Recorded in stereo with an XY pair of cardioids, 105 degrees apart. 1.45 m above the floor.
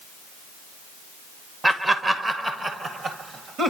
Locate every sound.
1.6 s laughter: 20° right, 1.1 m; by 3.7 s 50° right, 1.9 m